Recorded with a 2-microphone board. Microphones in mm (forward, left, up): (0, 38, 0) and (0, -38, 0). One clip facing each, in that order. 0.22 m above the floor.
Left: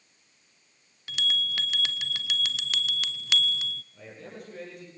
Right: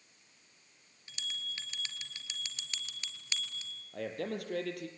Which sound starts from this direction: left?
A bell, at 1.1 s.